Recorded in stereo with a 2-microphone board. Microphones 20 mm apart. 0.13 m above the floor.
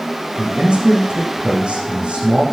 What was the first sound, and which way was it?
A man speaking, 75° right (ahead or behind).